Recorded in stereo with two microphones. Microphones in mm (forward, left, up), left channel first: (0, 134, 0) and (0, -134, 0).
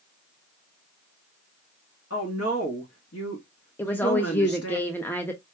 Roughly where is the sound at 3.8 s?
Centre.